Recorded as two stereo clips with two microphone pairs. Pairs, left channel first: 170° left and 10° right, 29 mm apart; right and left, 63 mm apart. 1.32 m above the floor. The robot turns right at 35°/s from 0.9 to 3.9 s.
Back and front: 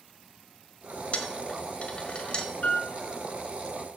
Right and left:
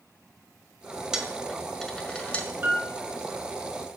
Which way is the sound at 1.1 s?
170° left.